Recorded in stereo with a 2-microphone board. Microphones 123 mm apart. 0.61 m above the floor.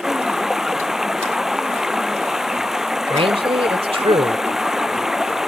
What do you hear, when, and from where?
0.0 s running water: 5° right (ahead or behind)
3.1 s a man speaking: 50° right (ahead or behind)